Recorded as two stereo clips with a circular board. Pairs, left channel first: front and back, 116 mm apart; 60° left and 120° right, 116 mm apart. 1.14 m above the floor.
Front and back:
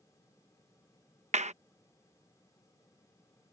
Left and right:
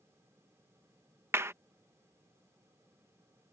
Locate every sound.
1.3 s a clap: 170° left